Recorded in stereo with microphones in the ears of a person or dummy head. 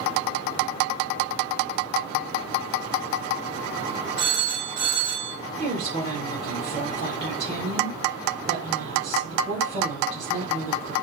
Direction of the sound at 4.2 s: 20° right (ahead or behind).